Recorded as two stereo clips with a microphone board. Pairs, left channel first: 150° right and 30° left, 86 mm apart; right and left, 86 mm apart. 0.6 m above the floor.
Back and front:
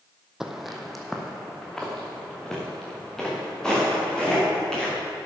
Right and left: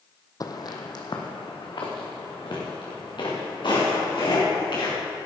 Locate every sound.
0.4 s footsteps: 55° right, 1.1 m; by 5.0 s 70° right, 6.5 m